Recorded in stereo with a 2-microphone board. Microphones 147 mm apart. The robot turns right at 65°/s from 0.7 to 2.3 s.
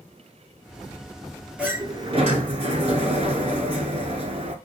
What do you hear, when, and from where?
1.6 s a sliding door: 170° right, 0.9 m; by 4.5 s 125° right, 0.9 m